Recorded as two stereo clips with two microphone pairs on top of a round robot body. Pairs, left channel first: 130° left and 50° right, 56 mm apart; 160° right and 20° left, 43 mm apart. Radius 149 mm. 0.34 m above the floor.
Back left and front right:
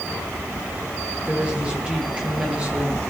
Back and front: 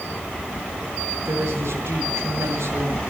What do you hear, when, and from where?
1.2 s a woman speaking: 20° left, 9 m